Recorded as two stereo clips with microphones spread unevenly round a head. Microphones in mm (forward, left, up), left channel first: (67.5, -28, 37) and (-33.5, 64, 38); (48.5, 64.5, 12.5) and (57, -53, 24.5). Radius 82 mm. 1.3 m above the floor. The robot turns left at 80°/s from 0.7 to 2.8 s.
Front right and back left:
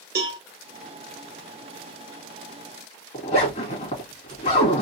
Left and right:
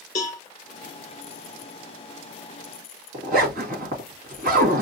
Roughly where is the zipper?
Right.